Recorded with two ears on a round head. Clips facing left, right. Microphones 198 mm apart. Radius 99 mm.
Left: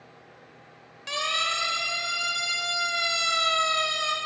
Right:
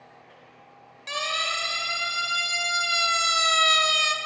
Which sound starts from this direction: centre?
A siren, at 1.1 s.